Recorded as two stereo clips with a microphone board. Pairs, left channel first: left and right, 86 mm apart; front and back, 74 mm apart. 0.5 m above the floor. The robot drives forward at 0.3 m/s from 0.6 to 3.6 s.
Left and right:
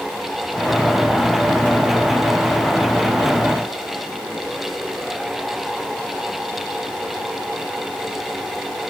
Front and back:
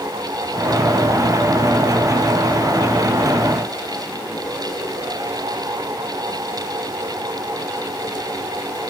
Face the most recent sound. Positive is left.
No sound to turn to.